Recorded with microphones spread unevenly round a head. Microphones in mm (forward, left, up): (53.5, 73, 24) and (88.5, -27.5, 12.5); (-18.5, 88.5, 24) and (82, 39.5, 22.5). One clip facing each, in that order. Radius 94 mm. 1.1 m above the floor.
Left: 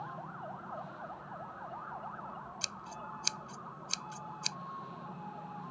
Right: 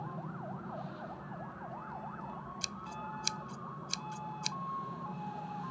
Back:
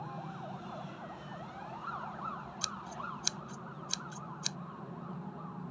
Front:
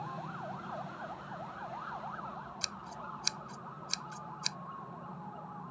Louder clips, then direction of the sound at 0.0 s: Right 1 dB, front 2 dB; 120° right.